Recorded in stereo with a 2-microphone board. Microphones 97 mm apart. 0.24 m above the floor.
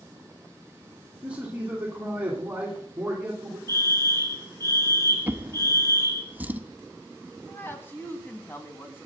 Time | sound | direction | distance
1.2 | a man speaking | 15° right (ahead or behind) | 2.5 m
3.7 | a fire alarm | 30° left (ahead or behind) | 3 m
5.3 | a drawer | 20° right (ahead or behind) | 0.7 m
7.5 | a woman speaking | 25° left (ahead or behind) | 2 m